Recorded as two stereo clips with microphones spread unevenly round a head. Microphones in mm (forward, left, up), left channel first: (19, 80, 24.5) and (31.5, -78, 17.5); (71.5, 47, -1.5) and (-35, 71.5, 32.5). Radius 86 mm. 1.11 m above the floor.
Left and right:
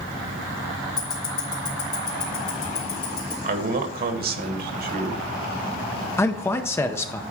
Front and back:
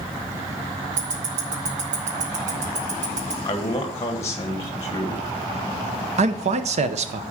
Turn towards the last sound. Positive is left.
turn(degrees=165)